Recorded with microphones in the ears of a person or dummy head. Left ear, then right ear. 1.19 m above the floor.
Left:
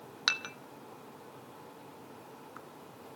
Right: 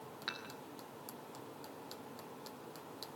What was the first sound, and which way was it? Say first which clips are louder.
Dishes clattering: left 13 dB; 60° left (ahead or behind).